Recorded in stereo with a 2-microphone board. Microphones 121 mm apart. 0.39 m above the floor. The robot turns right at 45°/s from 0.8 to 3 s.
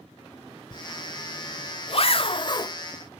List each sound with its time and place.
0.7 s a zipper: 40° left (ahead or behind), 0.9 m; by 2.8 s 30° left (ahead or behind), 0.9 m